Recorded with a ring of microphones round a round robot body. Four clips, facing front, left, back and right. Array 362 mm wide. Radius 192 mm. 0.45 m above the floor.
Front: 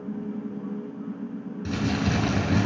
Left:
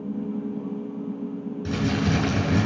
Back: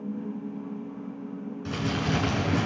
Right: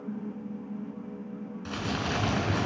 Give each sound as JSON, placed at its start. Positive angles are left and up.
{"t": 1.6, "sound": "crumpling", "azimuth_deg": 45, "distance_m": 5.0}